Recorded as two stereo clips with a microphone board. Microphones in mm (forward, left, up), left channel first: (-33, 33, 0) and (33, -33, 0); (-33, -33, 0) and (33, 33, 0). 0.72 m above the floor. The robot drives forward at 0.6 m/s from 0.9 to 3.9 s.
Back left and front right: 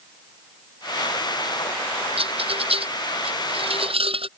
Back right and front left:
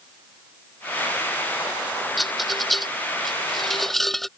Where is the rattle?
45° right.